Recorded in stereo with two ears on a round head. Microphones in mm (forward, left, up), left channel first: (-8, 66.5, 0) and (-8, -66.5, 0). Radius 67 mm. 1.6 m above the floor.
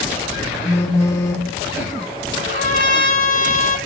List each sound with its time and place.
0.7 s a phone buzzing: 20° left (ahead or behind), 1.9 m
2.4 s a trumpet: 85° right, 7.5 m